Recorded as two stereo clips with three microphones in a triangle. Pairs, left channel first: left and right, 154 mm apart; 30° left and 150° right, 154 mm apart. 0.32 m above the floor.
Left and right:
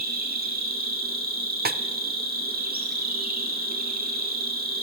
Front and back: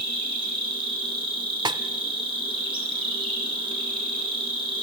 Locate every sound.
0.0 s an insect: 90° right, 4 m
1.6 s a snare drum: 85° right, 0.6 m